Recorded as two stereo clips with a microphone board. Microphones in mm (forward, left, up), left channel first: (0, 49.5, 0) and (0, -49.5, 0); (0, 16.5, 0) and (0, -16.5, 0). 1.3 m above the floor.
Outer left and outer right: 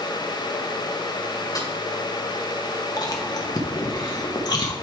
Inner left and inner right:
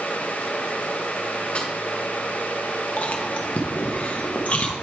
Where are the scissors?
No scissors in this recording.